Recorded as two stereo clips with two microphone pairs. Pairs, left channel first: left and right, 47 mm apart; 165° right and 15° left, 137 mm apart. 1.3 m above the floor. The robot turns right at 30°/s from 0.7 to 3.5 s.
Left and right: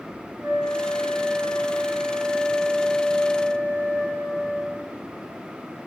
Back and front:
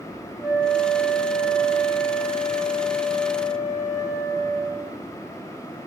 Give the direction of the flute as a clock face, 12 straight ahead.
2 o'clock.